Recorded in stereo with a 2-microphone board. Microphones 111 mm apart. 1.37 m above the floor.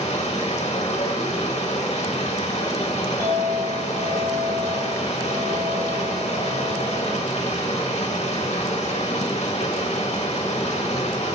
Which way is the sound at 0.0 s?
80° left.